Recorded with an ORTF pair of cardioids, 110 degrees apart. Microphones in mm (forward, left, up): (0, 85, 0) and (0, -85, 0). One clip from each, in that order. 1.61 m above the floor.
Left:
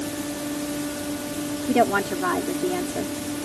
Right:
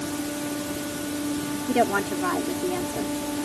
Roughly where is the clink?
I don't hear a clink.